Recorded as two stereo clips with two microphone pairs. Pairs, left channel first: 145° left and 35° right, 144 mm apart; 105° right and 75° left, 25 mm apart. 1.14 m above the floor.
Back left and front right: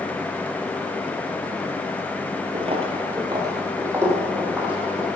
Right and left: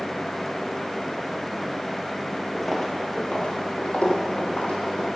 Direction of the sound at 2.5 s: 20° right.